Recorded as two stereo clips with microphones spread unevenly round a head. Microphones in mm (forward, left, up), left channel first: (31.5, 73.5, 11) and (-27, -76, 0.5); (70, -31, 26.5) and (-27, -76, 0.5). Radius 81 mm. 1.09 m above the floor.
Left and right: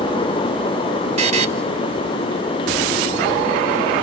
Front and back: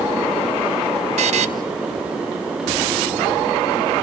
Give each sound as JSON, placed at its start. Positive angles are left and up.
{"t": 1.2, "sound": "a buzzer", "azimuth_deg": -160, "distance_m": 3.5}